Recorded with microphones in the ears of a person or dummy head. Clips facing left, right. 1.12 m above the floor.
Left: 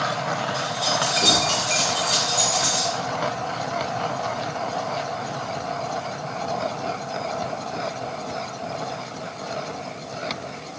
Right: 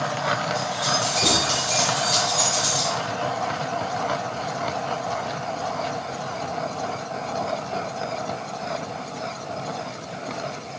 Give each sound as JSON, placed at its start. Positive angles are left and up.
{"t": 0.5, "sound": "keys jangling", "side_deg": 5, "distance_m": 5.0}